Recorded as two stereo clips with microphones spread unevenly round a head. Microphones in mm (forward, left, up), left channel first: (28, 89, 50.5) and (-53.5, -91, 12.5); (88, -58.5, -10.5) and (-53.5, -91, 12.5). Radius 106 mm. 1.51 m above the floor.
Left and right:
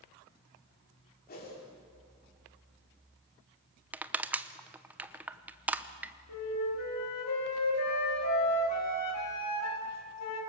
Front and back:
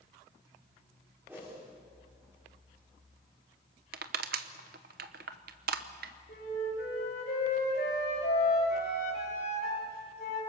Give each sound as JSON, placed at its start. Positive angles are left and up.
{"t": 1.3, "sound": "a whoosh", "azimuth_deg": 110, "distance_m": 5.0}
{"t": 3.9, "sound": "crushing", "azimuth_deg": 160, "distance_m": 0.8}
{"t": 6.3, "sound": "a flute", "azimuth_deg": 65, "distance_m": 3.5}